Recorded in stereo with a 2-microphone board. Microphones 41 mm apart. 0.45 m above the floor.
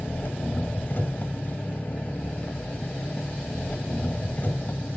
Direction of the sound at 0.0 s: 55° left (ahead or behind).